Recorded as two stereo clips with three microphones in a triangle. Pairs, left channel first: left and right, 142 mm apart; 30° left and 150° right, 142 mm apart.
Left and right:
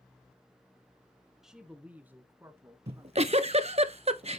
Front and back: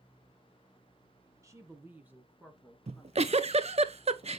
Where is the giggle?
120° right, 0.5 m.